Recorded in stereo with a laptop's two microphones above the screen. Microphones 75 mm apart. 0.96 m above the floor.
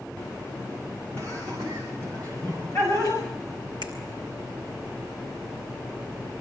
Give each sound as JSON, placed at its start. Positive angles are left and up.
{"t": 1.1, "sound": "laughter", "side_deg": 45, "distance_m": 5.5}
{"t": 3.8, "sound": "a finger snap", "side_deg": 85, "distance_m": 3.5}